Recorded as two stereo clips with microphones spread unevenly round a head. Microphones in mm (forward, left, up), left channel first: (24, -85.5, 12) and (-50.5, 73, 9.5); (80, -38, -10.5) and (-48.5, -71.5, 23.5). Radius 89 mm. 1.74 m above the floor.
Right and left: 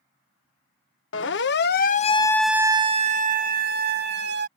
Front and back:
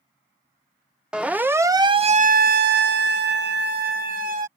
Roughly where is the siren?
Right.